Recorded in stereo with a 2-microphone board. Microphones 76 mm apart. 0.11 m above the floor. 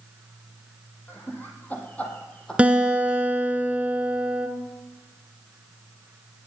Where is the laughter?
30° left (ahead or behind), 3 m; by 3.6 s 5° left (ahead or behind), 3.5 m.